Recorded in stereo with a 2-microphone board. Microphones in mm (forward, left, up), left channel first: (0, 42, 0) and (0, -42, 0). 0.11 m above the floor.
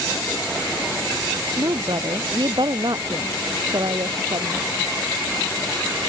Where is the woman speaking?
60° right (ahead or behind).